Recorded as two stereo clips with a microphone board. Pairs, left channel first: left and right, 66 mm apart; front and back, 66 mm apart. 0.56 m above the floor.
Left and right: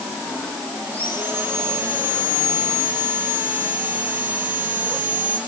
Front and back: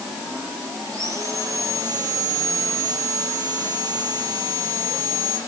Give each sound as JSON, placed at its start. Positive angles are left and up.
{"t": 0.9, "sound": "sawing", "azimuth_deg": -150, "distance_m": 7.5}